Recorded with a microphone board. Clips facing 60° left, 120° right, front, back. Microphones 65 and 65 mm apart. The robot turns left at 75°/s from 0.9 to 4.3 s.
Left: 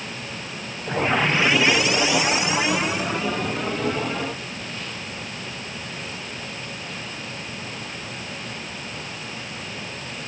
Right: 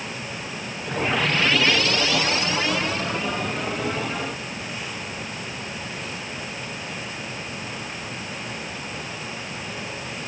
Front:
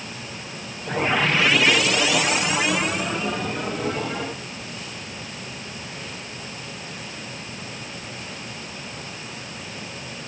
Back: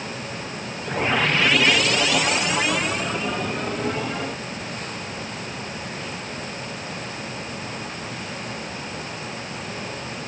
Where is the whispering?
No whispering in this recording.